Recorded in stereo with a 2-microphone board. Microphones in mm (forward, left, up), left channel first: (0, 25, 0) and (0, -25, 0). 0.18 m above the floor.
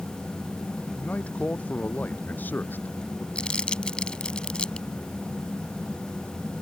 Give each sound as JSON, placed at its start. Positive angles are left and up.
{"t": 1.0, "sound": "a man speaking", "side_deg": 30}
{"t": 3.4, "sound": "crumpling", "side_deg": 20}